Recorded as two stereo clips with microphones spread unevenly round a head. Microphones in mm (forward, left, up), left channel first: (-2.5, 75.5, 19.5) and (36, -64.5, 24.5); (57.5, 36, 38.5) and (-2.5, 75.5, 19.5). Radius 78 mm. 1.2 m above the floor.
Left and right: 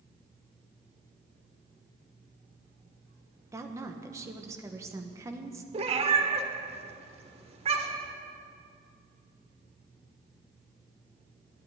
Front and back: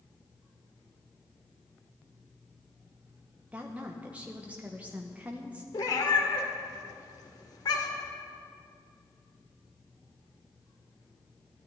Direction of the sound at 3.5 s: 145° right.